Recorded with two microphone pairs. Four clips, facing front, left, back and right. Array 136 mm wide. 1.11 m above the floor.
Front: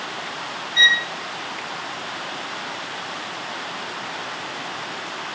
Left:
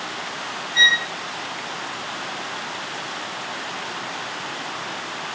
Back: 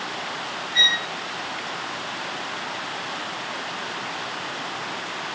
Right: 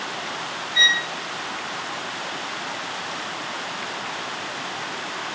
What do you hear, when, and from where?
0.8 s a violin: 175° left, 2.5 m